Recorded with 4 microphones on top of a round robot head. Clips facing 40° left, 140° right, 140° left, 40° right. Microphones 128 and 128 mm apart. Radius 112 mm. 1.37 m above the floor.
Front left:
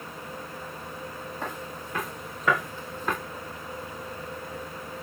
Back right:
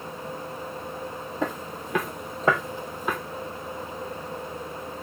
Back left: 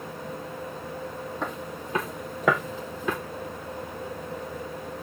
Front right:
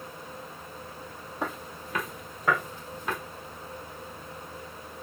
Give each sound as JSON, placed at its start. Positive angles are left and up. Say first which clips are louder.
{"t": 1.4, "sound": "footsteps", "louder": "back right 8 dB, front right 2 dB", "azimuth_deg": -125, "distance_m": 2.0}